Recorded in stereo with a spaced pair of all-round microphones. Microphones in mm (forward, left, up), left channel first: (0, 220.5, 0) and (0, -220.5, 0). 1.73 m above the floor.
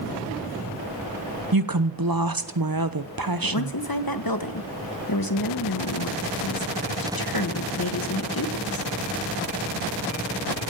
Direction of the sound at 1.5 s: 55° right (ahead or behind).